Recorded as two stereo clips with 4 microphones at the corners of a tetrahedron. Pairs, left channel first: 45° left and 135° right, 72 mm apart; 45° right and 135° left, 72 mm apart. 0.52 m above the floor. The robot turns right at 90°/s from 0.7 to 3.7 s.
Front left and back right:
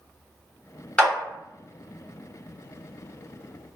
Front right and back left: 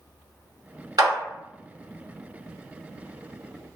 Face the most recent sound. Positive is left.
turn(degrees=10)